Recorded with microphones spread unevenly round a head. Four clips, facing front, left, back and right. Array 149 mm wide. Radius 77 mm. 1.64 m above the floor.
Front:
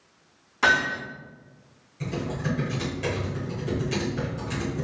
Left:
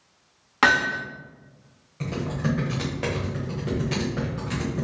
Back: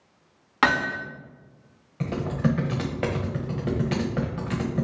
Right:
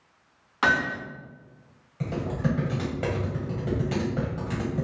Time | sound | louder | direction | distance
0.6 | hammering | left 3 dB, even | 115° left | 1.9 m
2.0 | typing on a keyboard | left 1 dB, back 4 dB | 175° right | 0.9 m